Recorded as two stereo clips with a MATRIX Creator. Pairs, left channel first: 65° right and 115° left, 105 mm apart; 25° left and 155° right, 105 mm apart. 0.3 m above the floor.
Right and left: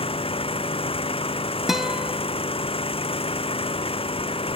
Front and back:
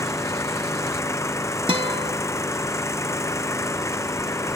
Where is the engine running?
40° right.